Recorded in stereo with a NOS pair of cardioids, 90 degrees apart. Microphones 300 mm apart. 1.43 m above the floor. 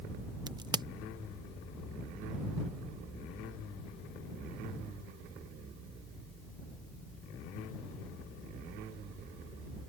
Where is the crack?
15° right.